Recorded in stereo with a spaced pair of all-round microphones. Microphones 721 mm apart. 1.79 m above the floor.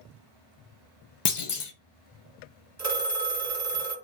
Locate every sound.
1.2 s a clunk: 50° left (ahead or behind), 0.6 m
2.8 s a phone ringing: 25° right (ahead or behind), 1.2 m